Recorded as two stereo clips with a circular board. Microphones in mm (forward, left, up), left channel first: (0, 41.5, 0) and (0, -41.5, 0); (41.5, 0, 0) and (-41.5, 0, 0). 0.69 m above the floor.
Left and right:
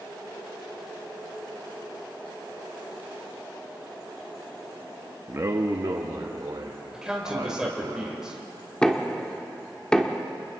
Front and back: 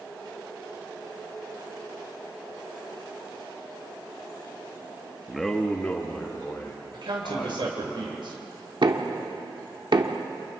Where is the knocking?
170° left, 1.2 m.